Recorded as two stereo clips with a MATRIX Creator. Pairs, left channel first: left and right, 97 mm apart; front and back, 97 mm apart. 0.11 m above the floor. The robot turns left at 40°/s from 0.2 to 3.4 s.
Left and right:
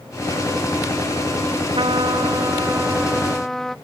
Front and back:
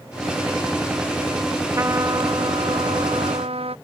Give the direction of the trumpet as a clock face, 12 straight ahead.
4 o'clock.